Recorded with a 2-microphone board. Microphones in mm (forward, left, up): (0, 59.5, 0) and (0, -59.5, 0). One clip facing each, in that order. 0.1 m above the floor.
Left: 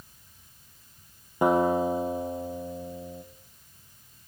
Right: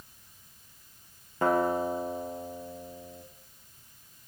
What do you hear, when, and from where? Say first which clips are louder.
1.4 s a guitar: left 3 dB; 15° left (ahead or behind), 4.5 m